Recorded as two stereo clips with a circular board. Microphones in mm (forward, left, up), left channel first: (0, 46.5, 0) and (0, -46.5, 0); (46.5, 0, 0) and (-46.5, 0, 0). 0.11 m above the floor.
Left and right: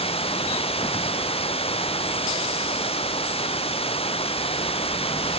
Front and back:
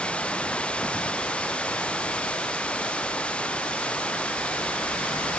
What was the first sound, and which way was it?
Running water, 80° left.